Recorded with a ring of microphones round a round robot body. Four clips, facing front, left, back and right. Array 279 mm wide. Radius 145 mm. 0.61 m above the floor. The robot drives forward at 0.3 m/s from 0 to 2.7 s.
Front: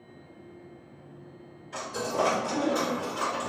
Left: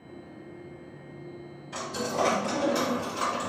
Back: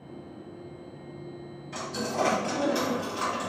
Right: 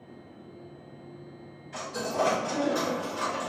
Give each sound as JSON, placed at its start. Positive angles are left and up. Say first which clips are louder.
{"t": 1.7, "sound": "a dropped coin", "louder": "even, front 1 dB", "azimuth_deg": 120, "distance_m": 1.0}